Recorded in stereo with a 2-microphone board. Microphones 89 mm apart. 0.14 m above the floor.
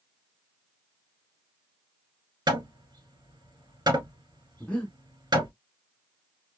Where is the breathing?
15° left (ahead or behind), 1.0 m.